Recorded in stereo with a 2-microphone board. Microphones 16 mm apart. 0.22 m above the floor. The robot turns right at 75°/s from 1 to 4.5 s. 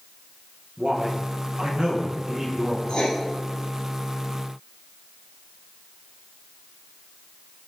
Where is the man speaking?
135° right, 4.5 m; by 2.8 s 5° right, 4.5 m.